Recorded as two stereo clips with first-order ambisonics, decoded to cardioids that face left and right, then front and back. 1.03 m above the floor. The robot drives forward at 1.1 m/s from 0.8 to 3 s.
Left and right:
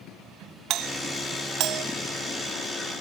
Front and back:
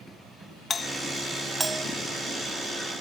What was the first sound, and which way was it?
A doorbell, 65° right.